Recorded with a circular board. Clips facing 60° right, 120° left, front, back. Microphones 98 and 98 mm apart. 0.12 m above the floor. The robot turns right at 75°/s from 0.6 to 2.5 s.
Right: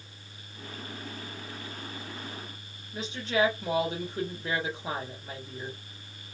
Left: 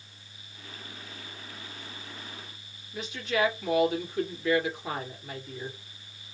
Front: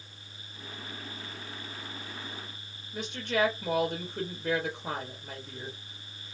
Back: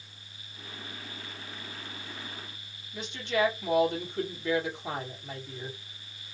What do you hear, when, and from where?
2.9 s a woman speaking: 15° right, 2.5 m